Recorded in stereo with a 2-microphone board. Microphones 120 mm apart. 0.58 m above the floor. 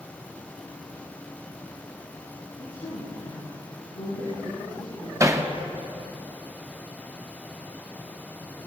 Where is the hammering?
25° right (ahead or behind), 0.8 m.